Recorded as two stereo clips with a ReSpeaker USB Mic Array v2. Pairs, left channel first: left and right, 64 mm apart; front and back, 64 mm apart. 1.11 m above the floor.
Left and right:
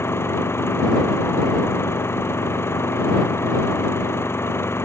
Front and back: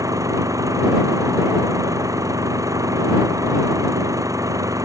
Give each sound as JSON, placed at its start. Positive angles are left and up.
{"t": 0.0, "sound": "an engine running", "azimuth_deg": 145}